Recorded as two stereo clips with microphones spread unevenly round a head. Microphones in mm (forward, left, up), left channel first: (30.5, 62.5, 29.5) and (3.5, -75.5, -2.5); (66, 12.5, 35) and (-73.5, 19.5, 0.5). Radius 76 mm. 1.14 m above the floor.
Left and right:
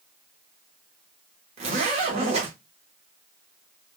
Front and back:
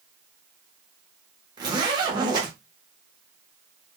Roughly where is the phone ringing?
No phone ringing in this recording.